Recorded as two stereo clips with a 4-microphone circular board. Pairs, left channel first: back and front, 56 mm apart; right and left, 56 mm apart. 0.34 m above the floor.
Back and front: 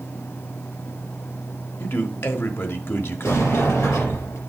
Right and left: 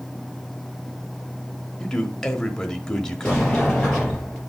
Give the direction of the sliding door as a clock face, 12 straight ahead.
5 o'clock.